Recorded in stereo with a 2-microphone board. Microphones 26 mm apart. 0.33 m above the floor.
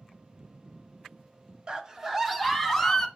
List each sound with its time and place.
1.7 s a scream: 30° right (ahead or behind), 1.7 m; by 3.1 s 10° left (ahead or behind), 2.5 m